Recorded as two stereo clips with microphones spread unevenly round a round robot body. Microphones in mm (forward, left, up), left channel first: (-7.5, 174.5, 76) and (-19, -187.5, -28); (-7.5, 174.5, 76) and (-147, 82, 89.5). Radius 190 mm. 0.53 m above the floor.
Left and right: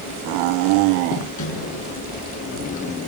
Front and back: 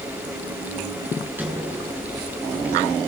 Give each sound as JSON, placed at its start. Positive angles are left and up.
{"t": 1.4, "sound": "a sliding door", "azimuth_deg": 135, "distance_m": 8.0}